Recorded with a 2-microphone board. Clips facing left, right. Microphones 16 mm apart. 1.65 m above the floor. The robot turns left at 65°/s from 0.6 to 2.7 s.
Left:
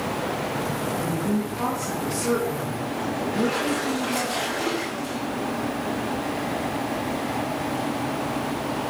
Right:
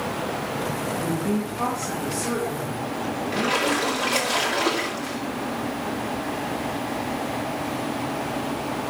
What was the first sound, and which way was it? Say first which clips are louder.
A woman speaking: even; 110° right.